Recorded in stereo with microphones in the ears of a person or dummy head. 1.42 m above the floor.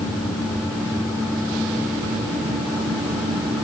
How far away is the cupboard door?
No cupboard door in this recording.